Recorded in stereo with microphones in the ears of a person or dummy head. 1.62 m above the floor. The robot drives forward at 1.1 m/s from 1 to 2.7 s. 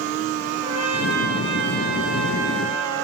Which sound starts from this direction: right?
A trumpet, at 0.6 s.